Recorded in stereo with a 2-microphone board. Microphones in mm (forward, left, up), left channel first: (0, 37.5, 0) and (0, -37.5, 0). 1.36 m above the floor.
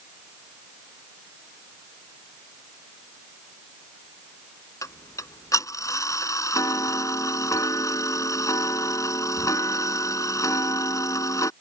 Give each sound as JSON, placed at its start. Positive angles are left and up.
{"t": 4.8, "sound": "ticking", "side_deg": 50}